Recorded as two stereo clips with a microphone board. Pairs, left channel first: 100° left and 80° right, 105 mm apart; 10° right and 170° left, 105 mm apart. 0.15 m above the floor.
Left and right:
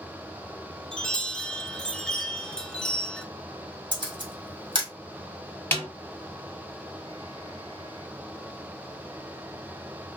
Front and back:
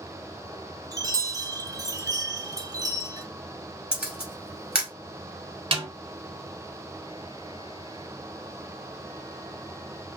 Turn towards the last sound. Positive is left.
turn(degrees=165)